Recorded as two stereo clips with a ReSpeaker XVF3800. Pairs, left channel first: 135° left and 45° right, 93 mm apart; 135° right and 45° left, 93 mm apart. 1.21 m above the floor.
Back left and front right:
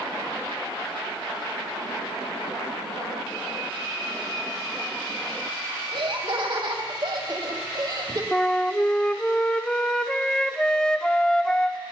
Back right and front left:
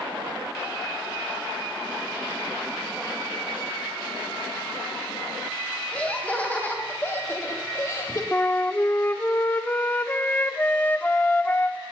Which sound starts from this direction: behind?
A flute, at 8.3 s.